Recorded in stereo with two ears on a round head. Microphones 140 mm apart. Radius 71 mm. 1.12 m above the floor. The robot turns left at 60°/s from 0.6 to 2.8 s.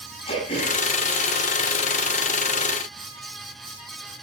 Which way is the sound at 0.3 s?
35° left (ahead or behind).